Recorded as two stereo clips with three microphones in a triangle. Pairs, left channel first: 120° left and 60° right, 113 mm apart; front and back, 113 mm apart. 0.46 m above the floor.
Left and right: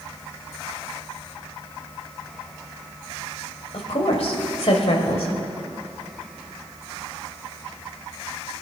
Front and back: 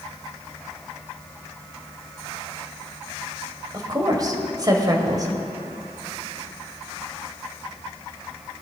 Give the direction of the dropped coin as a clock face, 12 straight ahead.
I don't hear a dropped coin.